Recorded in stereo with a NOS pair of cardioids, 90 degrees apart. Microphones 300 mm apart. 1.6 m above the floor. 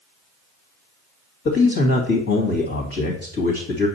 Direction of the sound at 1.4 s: 55° left.